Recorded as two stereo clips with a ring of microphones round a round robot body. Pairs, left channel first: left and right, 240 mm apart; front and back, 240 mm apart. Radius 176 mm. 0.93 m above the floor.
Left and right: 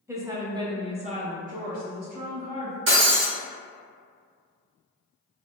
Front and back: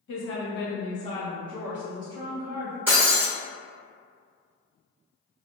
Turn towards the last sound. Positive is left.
turn(degrees=-100)